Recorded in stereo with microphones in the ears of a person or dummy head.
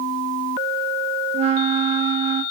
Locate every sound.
1.3 s a flute: 30° right (ahead or behind), 1.0 m